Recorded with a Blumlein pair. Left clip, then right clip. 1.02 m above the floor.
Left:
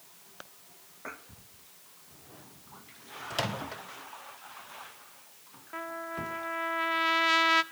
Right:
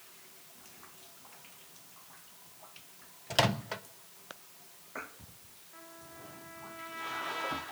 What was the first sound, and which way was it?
A microwave, 15° right.